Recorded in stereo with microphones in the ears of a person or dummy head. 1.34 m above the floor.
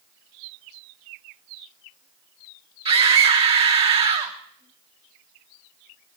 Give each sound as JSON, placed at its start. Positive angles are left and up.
{"t": 2.9, "sound": "a scream", "side_deg": -25, "distance_m": 2.5}